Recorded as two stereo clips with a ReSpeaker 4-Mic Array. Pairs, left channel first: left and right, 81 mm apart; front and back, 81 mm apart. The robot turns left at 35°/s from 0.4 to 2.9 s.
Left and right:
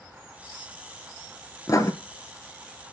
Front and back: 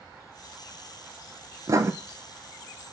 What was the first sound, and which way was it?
Writing, 135° left.